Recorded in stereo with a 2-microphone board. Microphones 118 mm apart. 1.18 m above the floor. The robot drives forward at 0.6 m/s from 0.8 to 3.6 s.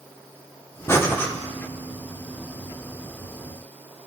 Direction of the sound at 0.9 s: 20° left (ahead or behind).